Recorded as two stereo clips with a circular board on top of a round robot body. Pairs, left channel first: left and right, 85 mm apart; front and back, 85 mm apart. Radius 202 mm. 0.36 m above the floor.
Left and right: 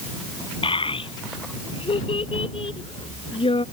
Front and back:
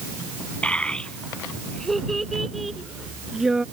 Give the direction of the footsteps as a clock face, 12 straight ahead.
No footsteps in this recording.